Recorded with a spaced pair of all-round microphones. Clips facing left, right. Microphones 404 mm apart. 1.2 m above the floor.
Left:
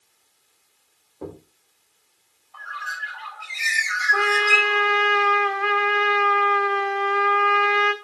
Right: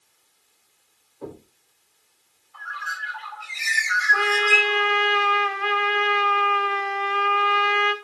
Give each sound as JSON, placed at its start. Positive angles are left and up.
{"t": 1.2, "sound": "knocking", "side_deg": 70, "distance_m": 4.5}
{"t": 2.5, "sound": "a bird", "side_deg": 70, "distance_m": 4.0}
{"t": 4.1, "sound": "a trumpet", "side_deg": 55, "distance_m": 1.8}